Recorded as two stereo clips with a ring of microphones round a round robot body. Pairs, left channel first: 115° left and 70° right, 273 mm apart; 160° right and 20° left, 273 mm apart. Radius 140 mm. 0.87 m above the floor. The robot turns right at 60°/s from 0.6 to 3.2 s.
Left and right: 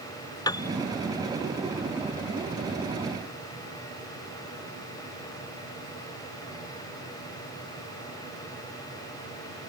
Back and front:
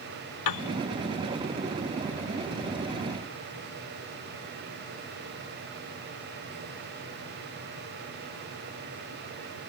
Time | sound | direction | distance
0.5 | a piano | 170° right | ?